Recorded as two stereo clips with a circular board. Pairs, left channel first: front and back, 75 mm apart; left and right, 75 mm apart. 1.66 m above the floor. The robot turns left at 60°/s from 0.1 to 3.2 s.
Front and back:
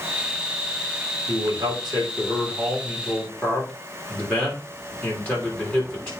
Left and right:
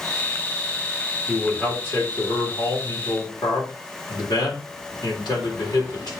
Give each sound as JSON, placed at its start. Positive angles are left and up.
{"t": 1.3, "sound": "a man speaking", "azimuth_deg": -175, "distance_m": 4.5}